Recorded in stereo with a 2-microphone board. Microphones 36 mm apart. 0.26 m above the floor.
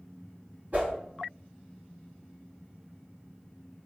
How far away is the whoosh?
About 1.0 m.